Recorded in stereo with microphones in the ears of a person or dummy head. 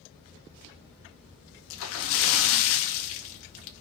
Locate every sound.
1.7 s a splash: 80° left, 1.9 m